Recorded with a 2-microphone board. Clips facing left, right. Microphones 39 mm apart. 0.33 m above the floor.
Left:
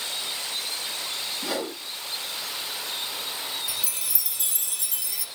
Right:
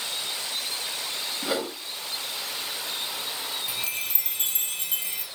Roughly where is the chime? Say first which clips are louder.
Right 2 dB; right.